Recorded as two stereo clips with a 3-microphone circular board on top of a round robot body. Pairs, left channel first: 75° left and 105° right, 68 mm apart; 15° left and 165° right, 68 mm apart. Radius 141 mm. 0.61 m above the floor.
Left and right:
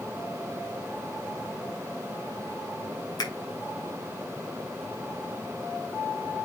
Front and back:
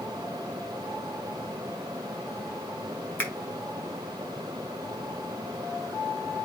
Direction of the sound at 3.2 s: 80° left.